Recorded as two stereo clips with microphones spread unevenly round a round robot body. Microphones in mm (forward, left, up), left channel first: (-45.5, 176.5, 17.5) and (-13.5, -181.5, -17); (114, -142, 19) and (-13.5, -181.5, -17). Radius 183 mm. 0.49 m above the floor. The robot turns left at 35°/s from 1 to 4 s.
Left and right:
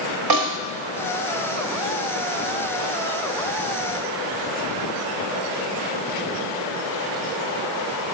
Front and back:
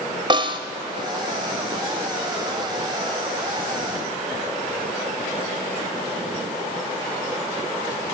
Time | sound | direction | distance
0.3 | a snare drum | 110° right | 1.1 m